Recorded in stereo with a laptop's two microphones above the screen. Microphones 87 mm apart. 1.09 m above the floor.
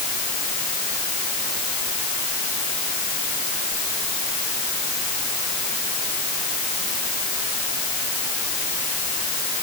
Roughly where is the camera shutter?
No camera shutter in this recording.